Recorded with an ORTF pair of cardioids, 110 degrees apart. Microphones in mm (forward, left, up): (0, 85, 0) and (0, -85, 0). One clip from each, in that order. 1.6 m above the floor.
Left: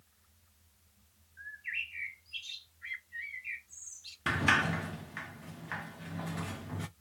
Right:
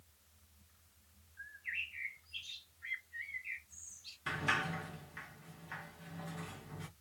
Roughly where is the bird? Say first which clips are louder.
Left 3 dB; ahead left.